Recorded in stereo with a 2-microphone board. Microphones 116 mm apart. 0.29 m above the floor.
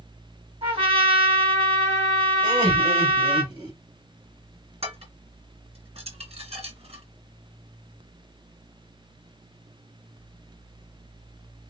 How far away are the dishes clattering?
About 2 m.